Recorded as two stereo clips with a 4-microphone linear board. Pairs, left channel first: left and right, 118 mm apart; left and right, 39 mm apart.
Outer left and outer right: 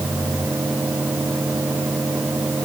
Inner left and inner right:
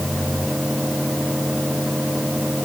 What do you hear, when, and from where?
Only background noise.